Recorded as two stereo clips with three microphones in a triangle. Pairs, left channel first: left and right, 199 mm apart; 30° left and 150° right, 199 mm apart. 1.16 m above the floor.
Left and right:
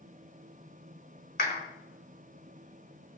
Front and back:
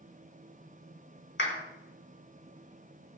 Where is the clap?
50° left, 3.5 m.